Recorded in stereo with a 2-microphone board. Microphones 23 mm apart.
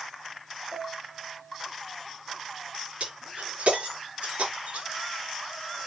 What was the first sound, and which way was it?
A piano, 85° right.